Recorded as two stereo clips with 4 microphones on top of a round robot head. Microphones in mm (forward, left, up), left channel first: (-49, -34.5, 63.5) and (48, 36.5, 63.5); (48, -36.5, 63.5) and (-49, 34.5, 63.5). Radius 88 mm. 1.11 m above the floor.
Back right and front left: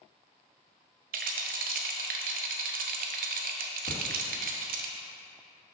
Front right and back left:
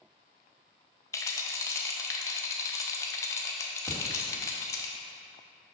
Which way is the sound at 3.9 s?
120° right.